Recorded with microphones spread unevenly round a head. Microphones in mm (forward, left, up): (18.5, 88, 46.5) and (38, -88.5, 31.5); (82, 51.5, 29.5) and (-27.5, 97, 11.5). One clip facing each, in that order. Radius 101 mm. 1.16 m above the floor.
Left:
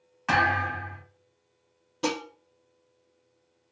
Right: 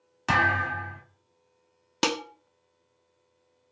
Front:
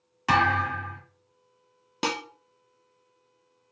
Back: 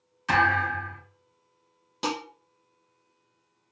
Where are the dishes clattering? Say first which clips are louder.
Even, even; 75° right, 0.5 m.